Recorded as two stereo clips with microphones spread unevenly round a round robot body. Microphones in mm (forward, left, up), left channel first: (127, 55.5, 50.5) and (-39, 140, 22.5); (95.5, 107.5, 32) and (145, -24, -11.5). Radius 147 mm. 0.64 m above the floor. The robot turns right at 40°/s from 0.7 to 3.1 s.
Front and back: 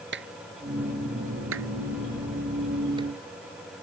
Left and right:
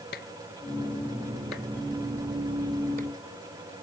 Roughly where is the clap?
Behind left.